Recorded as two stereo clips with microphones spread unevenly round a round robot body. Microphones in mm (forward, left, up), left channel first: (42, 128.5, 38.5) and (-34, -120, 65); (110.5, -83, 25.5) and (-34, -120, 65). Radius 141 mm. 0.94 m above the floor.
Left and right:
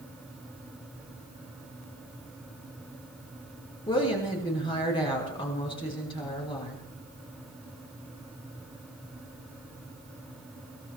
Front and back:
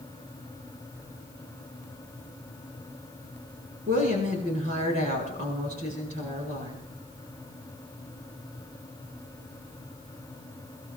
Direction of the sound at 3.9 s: 145° left.